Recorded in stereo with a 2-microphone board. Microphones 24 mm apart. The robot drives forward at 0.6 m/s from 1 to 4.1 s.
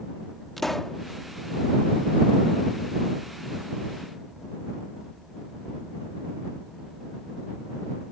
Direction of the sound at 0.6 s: 10° left (ahead or behind).